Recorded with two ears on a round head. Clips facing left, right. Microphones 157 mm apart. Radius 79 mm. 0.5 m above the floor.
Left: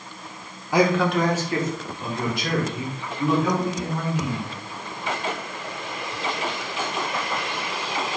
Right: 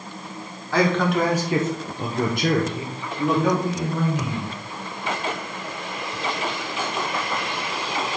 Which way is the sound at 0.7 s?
15° left (ahead or behind).